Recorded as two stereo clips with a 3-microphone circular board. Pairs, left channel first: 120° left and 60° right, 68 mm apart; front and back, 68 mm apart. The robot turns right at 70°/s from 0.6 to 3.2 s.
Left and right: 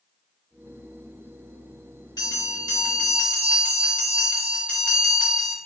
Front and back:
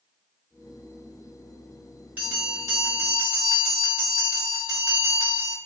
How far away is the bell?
About 1.2 m.